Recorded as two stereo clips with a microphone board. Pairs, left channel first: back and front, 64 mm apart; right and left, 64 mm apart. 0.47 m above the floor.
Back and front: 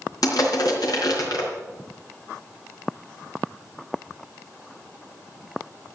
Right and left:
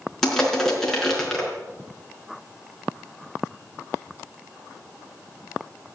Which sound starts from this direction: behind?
Crushing, at 0.2 s.